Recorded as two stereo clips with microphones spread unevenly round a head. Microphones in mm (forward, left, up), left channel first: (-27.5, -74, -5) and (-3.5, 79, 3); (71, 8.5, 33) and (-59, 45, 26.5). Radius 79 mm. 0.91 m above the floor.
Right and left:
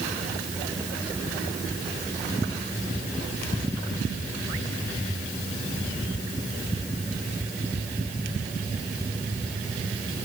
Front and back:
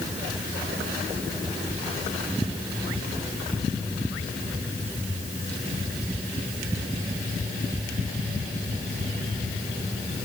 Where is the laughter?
I don't hear laughter.